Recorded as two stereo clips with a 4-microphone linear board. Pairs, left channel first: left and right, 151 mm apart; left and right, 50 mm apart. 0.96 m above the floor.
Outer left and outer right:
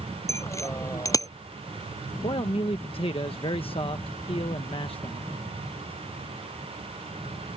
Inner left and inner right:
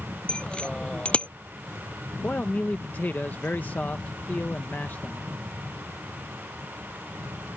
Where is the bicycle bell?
20° left (ahead or behind); by 1.3 s 25° left (ahead or behind).